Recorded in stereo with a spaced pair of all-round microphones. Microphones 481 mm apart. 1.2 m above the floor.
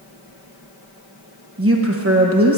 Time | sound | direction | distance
1.6 | a woman speaking | 30° right (ahead or behind) | 1.0 m